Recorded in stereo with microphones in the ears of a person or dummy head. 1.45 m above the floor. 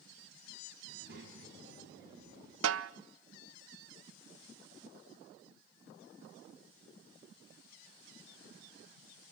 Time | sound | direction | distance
0.9 | a child speaking | 60° right (ahead or behind) | 8 m
2.6 | a snare drum | 85° right | 0.7 m